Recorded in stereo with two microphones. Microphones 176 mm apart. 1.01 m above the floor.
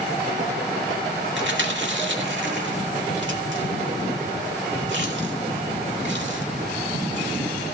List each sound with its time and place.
1.4 s chewing: 85° right, 2.0 m